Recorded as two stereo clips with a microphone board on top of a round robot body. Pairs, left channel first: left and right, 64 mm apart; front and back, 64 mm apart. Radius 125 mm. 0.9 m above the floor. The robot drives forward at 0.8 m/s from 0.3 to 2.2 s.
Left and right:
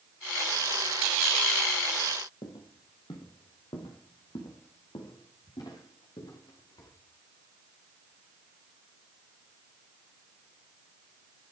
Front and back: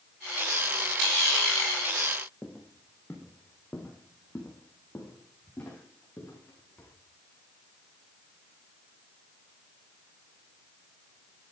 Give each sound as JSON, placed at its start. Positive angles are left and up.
{"t": 2.4, "sound": "footsteps", "azimuth_deg": 80, "distance_m": 1.8}